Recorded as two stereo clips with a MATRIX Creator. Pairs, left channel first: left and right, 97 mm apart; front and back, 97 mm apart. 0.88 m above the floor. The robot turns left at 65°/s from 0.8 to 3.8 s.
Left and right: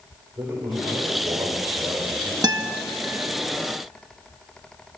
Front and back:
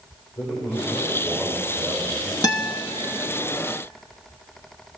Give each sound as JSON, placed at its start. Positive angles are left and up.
{"t": 0.4, "sound": "a man speaking", "azimuth_deg": -35, "distance_m": 4.0}
{"t": 2.4, "sound": "a guitar", "azimuth_deg": -45, "distance_m": 0.9}